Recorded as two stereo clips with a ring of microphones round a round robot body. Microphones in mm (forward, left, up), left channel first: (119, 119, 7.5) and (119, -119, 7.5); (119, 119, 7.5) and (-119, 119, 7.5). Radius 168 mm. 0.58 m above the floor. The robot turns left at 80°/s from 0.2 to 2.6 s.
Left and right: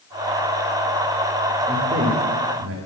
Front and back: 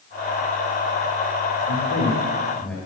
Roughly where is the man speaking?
Ahead.